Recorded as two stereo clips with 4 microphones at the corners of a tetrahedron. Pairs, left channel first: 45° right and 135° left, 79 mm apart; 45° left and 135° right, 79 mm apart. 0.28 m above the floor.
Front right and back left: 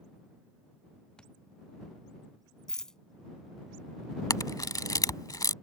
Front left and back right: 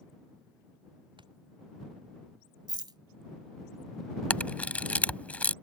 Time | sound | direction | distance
1.2 | a thud | 125° right | ?
2.7 | a rattle | 125° right | ?
4.3 | a camera shutter | 25° right | ?